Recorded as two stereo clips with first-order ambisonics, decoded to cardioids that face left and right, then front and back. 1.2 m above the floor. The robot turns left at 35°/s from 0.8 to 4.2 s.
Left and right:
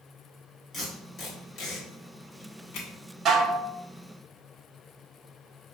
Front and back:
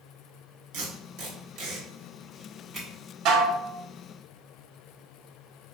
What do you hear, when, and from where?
0.7 s tape being pulled: 175° left, 1.3 m; by 2.9 s 100° left, 1.3 m
3.2 s dishes clattering: 145° right, 0.5 m; by 3.7 s 160° right, 0.5 m